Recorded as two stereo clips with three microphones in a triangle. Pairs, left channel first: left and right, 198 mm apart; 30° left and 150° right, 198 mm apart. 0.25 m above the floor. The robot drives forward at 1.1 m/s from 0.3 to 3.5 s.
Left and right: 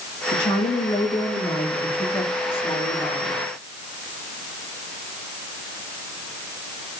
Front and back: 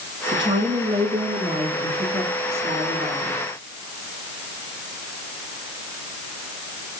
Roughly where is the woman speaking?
Behind left.